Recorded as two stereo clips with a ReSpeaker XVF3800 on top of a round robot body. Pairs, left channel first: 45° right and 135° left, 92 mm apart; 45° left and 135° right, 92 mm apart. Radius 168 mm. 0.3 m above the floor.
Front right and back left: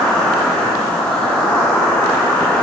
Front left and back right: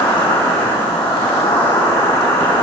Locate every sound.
0.0 s an insect: 25° left, 7 m